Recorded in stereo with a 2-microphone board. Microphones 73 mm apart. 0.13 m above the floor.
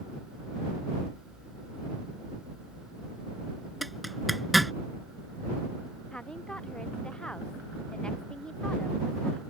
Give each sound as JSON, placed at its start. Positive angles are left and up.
{"t": 3.8, "sound": "a zipper", "side_deg": 0}
{"t": 6.1, "sound": "a woman speaking", "side_deg": 15}